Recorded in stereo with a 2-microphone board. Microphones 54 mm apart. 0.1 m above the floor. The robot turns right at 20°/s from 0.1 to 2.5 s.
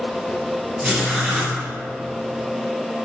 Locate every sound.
0.8 s writing: 10° right (ahead or behind), 2.5 m; by 1.6 s centre (ahead or behind), 2.5 m